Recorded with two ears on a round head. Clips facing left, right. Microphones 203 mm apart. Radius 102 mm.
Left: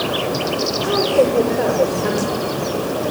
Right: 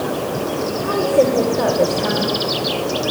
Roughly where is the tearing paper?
No tearing paper in this recording.